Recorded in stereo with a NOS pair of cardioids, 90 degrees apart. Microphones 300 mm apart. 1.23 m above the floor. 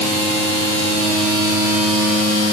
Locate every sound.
Only background noise.